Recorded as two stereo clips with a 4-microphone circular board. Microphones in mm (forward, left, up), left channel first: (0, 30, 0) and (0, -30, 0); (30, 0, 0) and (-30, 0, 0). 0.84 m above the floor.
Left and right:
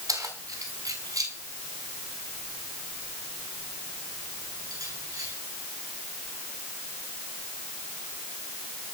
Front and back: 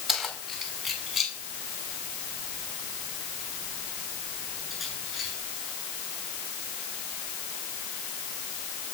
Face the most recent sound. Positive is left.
turn(degrees=-95)